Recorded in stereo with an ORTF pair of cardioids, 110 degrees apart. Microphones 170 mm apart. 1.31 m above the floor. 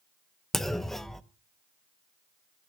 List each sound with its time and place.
0.5 s a clunk: straight ahead, 0.8 m